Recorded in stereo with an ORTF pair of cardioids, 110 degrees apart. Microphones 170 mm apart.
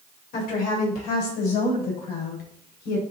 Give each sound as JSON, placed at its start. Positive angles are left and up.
{"t": 0.3, "sound": "a woman speaking", "azimuth_deg": 65, "distance_m": 4.5}